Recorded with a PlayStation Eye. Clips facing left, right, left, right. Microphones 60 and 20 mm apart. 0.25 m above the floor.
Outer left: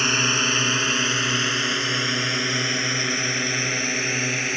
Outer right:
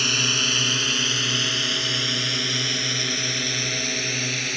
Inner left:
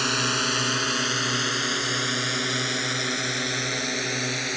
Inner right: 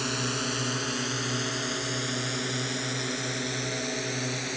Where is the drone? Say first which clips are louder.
Outer left 3 dB, inner left 6 dB; 30° left (ahead or behind); by 4.6 s 25° left (ahead or behind).